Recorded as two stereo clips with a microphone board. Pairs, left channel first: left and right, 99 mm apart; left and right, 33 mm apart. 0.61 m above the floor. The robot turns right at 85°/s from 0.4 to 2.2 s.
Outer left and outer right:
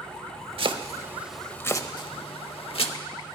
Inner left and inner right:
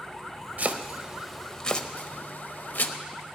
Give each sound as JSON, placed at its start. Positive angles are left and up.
{"t": 0.6, "sound": "chopping", "side_deg": -65, "distance_m": 0.8}